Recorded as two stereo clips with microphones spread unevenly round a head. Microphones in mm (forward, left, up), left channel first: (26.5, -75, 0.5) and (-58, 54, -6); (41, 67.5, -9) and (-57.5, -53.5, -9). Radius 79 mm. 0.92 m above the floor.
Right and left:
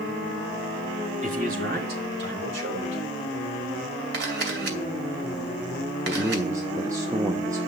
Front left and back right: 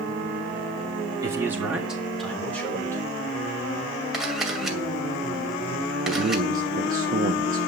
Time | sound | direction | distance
1.2 | a man speaking | 160° left | 3 m
4.1 | a camera shutter | 145° left | 2.5 m
6.0 | a man speaking | 165° right | 0.9 m